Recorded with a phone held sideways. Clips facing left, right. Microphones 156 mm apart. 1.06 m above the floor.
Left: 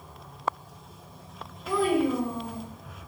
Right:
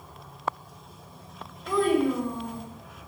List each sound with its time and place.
1.7 s a child speaking: 5° left (ahead or behind), 1.0 m